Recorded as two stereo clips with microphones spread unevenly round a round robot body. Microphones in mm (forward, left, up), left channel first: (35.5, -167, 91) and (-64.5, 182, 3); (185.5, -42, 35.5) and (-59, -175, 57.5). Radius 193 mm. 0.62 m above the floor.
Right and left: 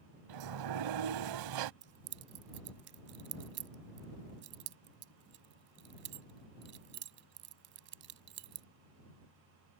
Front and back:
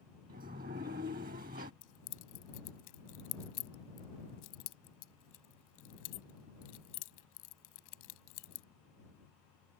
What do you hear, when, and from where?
0.3 s a sliding door: 140° left
1.8 s keys jangling: 50° left